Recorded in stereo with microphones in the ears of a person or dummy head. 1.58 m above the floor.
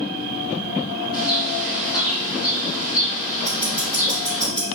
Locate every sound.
1.1 s a bird: 25° left (ahead or behind), 1.5 m
3.5 s ticking: 10° left (ahead or behind), 1.5 m